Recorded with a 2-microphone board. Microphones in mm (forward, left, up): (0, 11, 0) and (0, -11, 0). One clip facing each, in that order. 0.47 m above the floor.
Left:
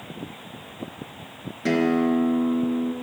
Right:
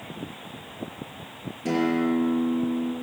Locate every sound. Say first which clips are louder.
1.6 s a guitar: left 3 dB; 75° left (ahead or behind), 4 m